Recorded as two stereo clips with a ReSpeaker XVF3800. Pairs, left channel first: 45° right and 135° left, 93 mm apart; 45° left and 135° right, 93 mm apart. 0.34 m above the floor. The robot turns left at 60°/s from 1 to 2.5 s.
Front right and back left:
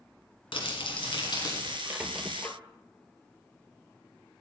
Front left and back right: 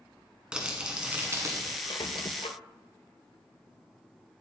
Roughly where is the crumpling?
Ahead right.